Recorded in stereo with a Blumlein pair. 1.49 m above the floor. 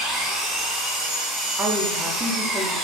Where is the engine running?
5° right, 0.9 m.